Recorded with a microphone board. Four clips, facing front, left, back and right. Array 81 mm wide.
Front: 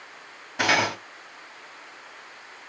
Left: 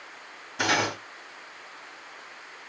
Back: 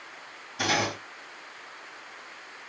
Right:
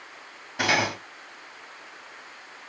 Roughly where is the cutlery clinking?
Ahead right.